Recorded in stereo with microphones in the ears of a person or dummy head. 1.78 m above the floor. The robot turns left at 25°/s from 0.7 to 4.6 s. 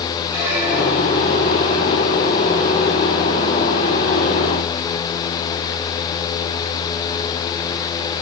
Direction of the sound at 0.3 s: 5° right (ahead or behind).